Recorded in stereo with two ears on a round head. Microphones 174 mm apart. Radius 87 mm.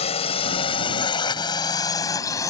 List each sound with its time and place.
0.0 s a drone: 35° left (ahead or behind); by 2.5 s 15° left (ahead or behind)